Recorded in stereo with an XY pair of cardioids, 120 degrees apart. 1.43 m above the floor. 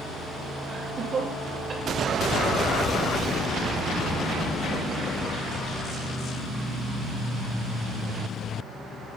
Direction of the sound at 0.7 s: 40° right.